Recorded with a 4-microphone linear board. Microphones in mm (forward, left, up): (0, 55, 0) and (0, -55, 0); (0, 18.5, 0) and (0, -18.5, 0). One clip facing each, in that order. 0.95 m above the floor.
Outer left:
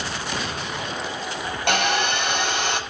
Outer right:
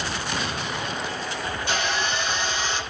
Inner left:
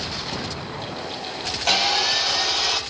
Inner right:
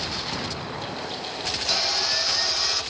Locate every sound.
1.7 s sawing: 70° left (ahead or behind), 7 m